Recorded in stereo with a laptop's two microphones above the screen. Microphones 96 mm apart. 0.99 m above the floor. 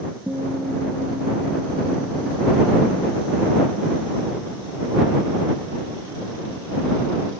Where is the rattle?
I don't hear a rattle.